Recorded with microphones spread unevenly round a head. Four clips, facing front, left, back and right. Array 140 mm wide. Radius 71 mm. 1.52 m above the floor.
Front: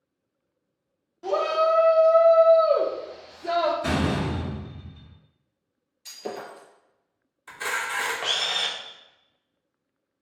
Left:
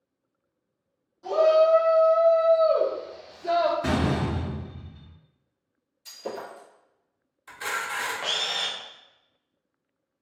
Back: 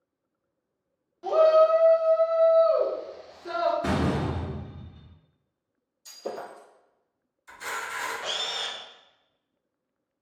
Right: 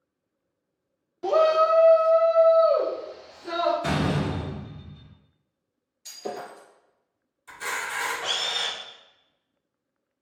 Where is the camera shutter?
15° left, 0.8 m.